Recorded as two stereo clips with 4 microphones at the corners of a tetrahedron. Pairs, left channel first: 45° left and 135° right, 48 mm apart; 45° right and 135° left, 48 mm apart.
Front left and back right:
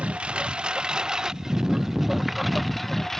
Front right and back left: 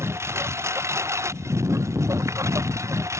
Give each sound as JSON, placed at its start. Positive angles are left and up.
{"t": 0.0, "sound": "a lawn mower", "azimuth_deg": 160}